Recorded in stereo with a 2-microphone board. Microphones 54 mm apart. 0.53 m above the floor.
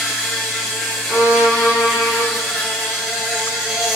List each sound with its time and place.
0.0 s an insect: centre (ahead or behind), 1.3 m
1.1 s a violin: 30° right (ahead or behind), 0.8 m